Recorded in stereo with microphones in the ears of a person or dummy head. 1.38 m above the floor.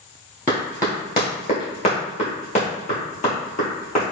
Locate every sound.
0.5 s running footsteps: 15° left (ahead or behind), 1.5 m; by 4.0 s 40° left (ahead or behind), 2.5 m